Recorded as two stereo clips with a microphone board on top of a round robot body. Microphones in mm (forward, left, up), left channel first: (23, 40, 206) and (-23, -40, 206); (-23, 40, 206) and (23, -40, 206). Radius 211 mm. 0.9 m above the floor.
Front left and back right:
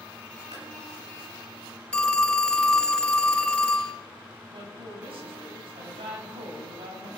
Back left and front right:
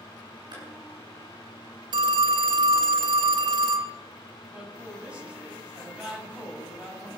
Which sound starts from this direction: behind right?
A woman speaking, at 4.5 s.